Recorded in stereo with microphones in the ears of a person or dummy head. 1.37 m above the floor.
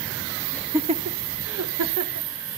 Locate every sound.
0.5 s laughter: 10° left (ahead or behind), 0.6 m; by 2.3 s 80° right, 2 m